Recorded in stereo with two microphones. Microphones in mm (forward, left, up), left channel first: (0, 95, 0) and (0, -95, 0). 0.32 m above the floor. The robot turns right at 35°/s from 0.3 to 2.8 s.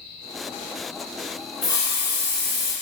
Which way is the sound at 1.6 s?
145° left.